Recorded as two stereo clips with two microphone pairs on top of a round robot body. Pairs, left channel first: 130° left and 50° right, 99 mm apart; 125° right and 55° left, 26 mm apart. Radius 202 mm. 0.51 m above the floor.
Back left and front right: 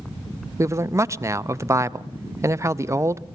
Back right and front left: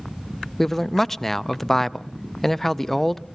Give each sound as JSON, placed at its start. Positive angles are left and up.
{"t": 0.6, "sound": "a man speaking", "azimuth_deg": -80, "distance_m": 0.8}